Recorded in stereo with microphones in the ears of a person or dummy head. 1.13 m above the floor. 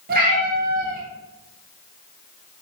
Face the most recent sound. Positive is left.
turn(degrees=-55)  # may be behind; listen again after turning